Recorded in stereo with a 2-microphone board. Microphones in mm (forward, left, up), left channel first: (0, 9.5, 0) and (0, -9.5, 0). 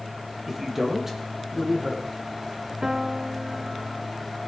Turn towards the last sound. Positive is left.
turn(degrees=-35)  # may be behind; listen again after turning